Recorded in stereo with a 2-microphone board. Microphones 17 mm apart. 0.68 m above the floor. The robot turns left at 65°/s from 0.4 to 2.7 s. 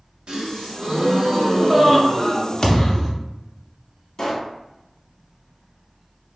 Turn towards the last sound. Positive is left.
turn(degrees=25)  # may be behind; listen again after turning